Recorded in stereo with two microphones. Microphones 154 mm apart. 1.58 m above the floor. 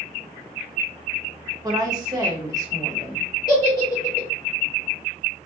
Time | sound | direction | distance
1.6 | a woman speaking | 25° right (ahead or behind) | 0.9 m
3.5 | a giggle | 25° left (ahead or behind) | 1.5 m